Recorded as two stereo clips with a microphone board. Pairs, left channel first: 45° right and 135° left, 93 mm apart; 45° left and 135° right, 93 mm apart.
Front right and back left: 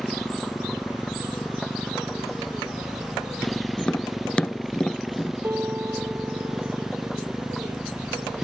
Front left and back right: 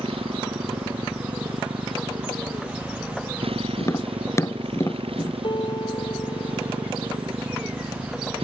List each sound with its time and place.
0.0 s a motorcycle: 130° right; by 8.4 s 140° right
3.8 s tapping: 25° left
5.4 s a piano: 70° left